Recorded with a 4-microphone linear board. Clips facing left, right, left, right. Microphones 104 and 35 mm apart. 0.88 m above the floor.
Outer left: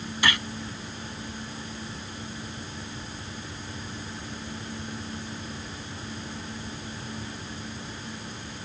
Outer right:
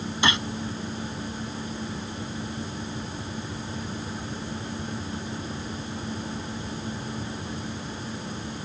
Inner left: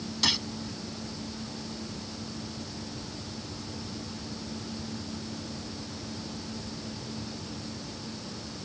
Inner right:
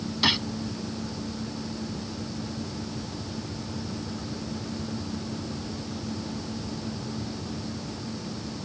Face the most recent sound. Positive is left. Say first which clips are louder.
# outer right 2 dB, inner right 4 dB
turn(degrees=-25)  # may be behind; listen again after turning